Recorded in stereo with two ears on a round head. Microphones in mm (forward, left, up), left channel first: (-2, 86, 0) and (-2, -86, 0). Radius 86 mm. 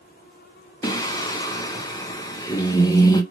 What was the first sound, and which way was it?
Singing, 20° left (ahead or behind).